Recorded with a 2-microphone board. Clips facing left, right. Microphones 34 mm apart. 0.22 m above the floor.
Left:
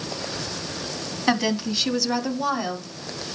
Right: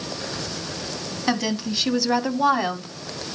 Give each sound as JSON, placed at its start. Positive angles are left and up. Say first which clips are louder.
{"t": 1.3, "sound": "a woman speaking", "louder": "left 2 dB", "side_deg": 10, "distance_m": 2.0}